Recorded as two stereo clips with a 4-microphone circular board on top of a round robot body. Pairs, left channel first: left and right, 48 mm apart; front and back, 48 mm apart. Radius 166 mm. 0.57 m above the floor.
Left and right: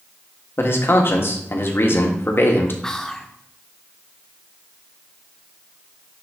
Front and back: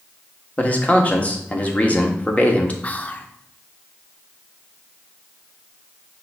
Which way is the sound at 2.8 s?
20° left.